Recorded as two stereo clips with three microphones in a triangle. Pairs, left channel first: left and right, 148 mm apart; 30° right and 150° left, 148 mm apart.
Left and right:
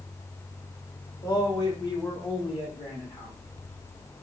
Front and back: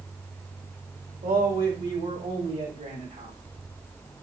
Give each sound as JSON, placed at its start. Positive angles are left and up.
{"t": 1.2, "sound": "a man speaking", "azimuth_deg": 150, "distance_m": 1.7}